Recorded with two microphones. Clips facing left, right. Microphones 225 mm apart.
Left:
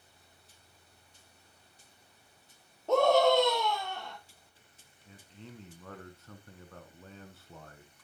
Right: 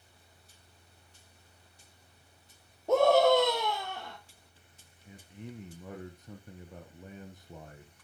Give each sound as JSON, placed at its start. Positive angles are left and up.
{"t": 2.9, "sound": "a scream", "side_deg": -10, "distance_m": 2.5}
{"t": 5.0, "sound": "a man speaking", "side_deg": -15, "distance_m": 1.1}